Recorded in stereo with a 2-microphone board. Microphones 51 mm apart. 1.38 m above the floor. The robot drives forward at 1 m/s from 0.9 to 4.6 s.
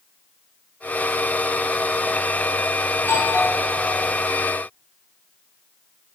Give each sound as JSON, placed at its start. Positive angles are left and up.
{"t": 3.0, "sound": "a doorbell", "side_deg": 65, "distance_m": 7.0}